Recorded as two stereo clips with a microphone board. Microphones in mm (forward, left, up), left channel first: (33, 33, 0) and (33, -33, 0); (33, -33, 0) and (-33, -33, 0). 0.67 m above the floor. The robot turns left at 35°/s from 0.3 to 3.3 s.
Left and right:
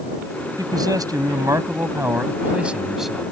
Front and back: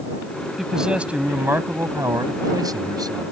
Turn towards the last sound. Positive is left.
turn(degrees=175)